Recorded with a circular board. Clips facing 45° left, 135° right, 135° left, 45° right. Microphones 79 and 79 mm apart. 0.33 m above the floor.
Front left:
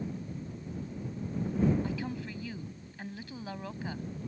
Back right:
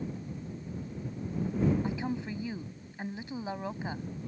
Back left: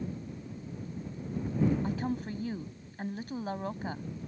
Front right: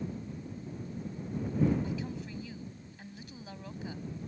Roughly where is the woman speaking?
Behind.